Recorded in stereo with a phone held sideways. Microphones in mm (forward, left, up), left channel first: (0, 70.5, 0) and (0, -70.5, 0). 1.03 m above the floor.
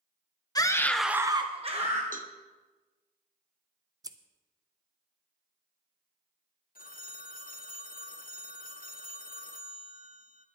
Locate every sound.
0.6 s a scream: 25° left (ahead or behind), 1.0 m; by 2.0 s 50° right (ahead or behind), 1.4 m
2.1 s a cowbell: 70° right (ahead or behind), 0.7 m
4.0 s scissors: 25° right (ahead or behind), 0.6 m
6.8 s a phone ringing: 75° left (ahead or behind), 0.5 m